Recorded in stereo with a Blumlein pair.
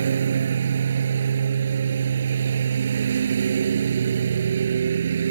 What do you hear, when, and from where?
0.0 s a lawn mower: 70° right